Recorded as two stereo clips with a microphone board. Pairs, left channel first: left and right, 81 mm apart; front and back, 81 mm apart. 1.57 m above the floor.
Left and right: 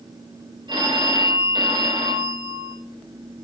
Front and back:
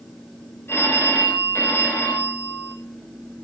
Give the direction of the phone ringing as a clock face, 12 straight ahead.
2 o'clock.